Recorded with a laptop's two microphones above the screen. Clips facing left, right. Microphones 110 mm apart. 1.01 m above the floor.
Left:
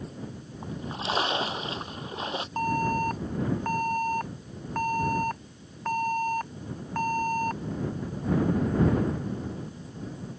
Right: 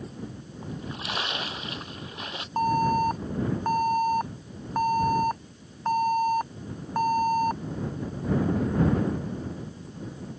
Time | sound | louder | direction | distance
0.6 | a splash | left 3 dB | 25° left (ahead or behind) | ?
2.6 | an alarm | right 4 dB | 15° right (ahead or behind) | ?